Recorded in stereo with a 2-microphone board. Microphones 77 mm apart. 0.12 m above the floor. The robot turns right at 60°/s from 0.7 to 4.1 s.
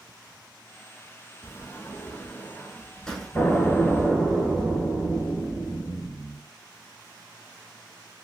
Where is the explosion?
155° left, 2 m; by 6.4 s 160° right, 2 m.